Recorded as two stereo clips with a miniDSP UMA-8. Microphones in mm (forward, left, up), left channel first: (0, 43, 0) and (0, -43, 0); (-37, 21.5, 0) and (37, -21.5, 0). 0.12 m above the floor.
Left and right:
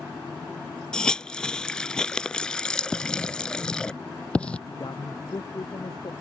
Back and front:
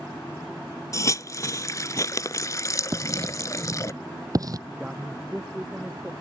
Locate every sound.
0.9 s a hiss: 165° left
2.9 s writing: 15° left
4.7 s a man speaking: 50° left